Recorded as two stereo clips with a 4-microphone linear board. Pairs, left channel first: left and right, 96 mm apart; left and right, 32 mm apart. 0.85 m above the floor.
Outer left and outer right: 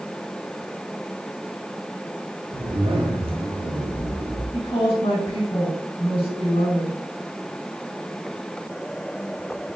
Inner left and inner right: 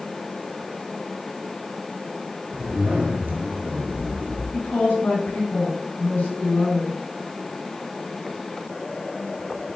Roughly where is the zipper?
Right.